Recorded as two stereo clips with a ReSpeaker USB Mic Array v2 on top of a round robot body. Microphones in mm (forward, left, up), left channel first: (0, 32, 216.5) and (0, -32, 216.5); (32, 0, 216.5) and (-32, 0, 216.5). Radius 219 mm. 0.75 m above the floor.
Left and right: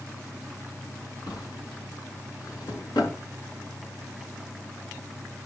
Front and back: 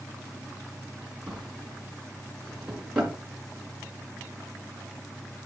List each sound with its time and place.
1.3 s a drawer: 105° left, 4 m